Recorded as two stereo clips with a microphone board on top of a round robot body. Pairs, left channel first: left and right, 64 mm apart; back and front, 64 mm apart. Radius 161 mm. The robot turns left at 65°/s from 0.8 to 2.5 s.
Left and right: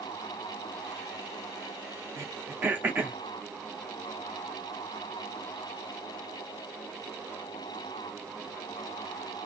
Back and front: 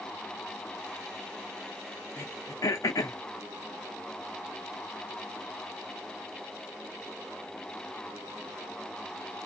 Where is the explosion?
No explosion in this recording.